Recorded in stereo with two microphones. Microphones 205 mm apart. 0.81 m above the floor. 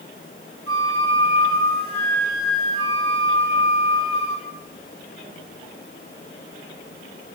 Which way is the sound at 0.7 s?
75° right (ahead or behind).